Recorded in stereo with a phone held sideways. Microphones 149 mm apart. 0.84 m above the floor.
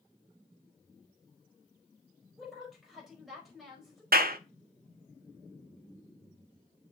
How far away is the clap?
About 0.7 m.